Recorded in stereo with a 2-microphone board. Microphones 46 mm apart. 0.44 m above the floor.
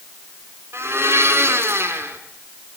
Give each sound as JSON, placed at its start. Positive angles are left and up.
{"t": 0.7, "sound": "a blender", "side_deg": -75, "distance_m": 4.5}